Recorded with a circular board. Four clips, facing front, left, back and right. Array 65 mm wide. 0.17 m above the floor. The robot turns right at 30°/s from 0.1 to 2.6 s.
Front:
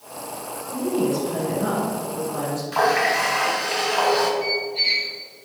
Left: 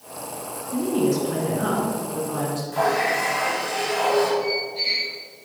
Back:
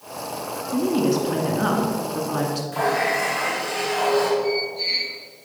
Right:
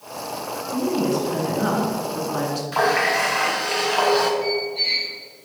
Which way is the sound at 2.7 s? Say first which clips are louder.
Right 2 dB, front 3 dB; 55° right.